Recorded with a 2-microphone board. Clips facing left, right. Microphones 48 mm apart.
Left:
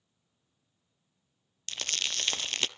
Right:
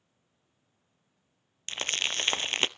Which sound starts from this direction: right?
Crumpling, at 1.7 s.